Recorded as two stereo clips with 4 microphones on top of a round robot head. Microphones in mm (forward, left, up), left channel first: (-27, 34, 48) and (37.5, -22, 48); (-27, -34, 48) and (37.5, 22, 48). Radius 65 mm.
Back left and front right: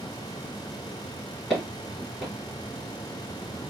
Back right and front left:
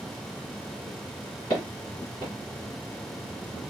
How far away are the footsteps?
About 1.5 m.